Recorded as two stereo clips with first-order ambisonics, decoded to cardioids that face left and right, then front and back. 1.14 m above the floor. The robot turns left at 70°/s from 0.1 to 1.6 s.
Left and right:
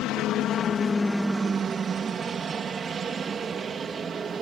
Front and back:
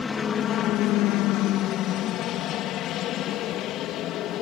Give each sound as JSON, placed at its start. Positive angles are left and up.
{"t": 0.0, "sound": "a helicopter", "azimuth_deg": 75}